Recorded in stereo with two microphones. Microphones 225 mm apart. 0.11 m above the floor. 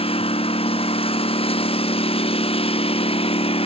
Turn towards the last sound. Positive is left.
turn(degrees=25)  # may be behind; listen again after turning